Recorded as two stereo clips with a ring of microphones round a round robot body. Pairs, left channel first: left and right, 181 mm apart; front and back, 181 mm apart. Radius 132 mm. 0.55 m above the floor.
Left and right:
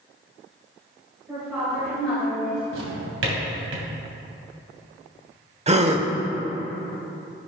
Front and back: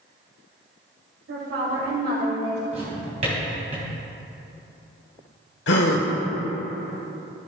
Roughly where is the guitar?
I don't hear a guitar.